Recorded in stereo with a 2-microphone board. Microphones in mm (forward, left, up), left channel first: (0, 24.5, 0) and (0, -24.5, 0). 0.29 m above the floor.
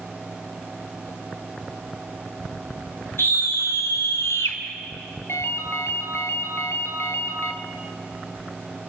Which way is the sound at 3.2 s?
60° left (ahead or behind).